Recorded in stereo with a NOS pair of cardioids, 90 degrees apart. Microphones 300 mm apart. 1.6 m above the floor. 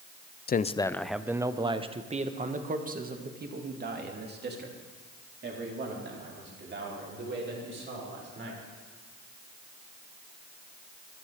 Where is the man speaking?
35° left, 0.5 m; by 8.6 s 40° right, 5.5 m.